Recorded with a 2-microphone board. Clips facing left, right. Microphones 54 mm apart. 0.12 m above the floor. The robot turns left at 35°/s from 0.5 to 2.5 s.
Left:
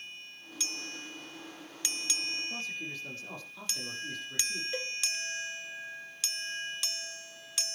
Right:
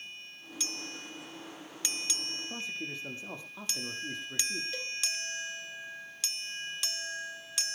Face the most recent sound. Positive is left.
turn(degrees=20)  # may be behind; listen again after turning